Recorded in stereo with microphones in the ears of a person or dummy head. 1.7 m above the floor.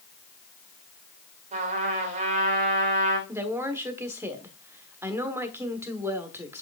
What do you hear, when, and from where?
1.5 s a trumpet: 40° right (ahead or behind), 1.8 m
3.3 s a woman speaking: 15° right (ahead or behind), 1.2 m